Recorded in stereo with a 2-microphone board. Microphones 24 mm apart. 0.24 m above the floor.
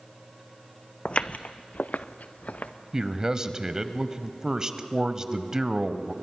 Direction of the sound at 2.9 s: 25° right (ahead or behind).